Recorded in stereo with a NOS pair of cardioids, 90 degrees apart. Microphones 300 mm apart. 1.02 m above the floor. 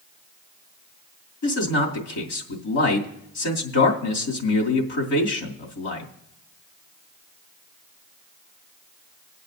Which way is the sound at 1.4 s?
65° left.